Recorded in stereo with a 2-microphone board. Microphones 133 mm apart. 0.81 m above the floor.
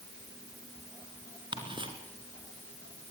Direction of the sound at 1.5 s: 35° right (ahead or behind).